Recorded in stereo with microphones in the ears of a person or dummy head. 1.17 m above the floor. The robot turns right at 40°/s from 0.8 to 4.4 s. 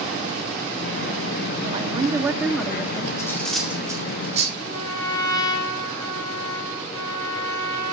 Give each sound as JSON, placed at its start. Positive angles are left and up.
{"t": 1.6, "sound": "a woman speaking", "azimuth_deg": -35, "distance_m": 1.8}
{"t": 3.2, "sound": "cutlery clinking", "side_deg": 15, "distance_m": 2.0}
{"t": 4.6, "sound": "a trumpet", "side_deg": 25, "distance_m": 5.5}